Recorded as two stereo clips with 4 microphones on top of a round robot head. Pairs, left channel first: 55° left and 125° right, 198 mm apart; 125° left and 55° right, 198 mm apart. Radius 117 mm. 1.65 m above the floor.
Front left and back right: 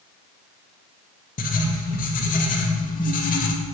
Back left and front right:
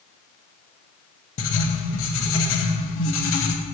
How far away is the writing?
About 2.0 m.